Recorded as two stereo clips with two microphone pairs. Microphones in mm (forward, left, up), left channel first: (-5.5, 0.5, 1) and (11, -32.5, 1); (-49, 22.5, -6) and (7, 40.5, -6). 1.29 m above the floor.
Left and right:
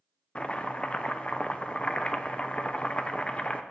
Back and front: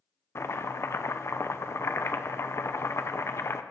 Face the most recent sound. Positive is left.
turn(degrees=170)